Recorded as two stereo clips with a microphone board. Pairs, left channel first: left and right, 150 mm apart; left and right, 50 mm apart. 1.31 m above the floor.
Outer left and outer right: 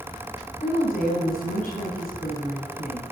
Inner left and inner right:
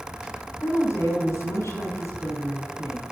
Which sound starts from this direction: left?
A woman speaking, at 0.6 s.